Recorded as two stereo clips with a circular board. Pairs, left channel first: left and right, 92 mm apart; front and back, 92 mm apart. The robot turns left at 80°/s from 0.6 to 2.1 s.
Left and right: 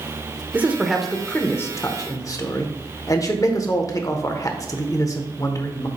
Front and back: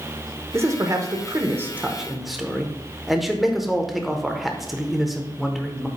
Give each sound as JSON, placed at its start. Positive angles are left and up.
{"t": 0.5, "sound": "a man speaking", "azimuth_deg": -145, "distance_m": 0.9}